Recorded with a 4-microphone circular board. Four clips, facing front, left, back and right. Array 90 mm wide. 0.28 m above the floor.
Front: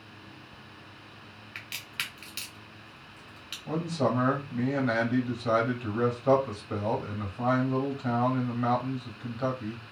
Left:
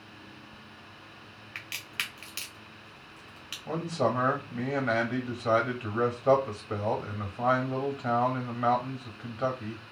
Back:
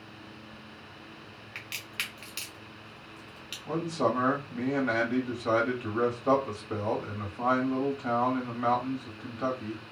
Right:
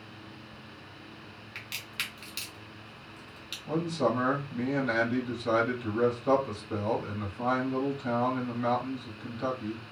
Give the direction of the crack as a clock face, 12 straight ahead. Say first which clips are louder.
Left 2 dB, even; 9 o'clock.